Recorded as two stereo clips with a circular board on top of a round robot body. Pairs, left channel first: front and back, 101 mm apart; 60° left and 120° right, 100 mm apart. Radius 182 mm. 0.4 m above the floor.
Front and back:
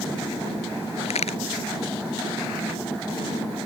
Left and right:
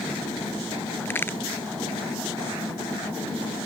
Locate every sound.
1.1 s a crack: 10° right